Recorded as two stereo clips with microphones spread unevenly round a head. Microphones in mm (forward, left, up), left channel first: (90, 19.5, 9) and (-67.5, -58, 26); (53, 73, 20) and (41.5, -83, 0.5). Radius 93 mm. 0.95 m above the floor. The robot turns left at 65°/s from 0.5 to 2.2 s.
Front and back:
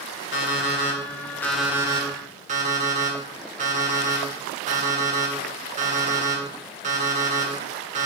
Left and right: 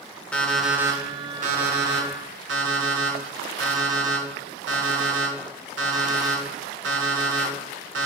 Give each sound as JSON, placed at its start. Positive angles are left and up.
{"t": 0.3, "sound": "an alarm clock", "azimuth_deg": 5, "distance_m": 1.5}